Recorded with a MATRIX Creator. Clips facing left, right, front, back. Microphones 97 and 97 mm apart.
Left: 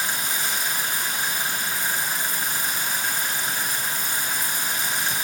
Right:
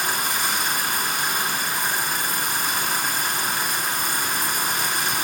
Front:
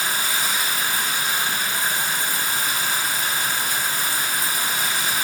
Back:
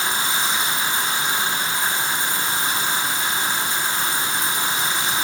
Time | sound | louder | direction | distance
0.0 | running water | right 4 dB, back 2 dB | 110° right | 2 m